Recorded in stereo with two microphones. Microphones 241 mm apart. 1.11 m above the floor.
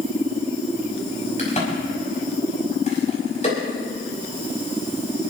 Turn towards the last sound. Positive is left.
turn(degrees=30)  # may be behind; listen again after turning